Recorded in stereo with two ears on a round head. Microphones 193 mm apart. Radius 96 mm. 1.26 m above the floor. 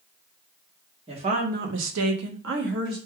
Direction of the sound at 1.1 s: 25° right (ahead or behind).